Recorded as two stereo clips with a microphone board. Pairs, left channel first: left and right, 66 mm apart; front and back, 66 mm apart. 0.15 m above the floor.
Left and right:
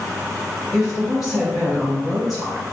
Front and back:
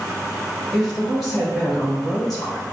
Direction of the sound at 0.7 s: 90° left.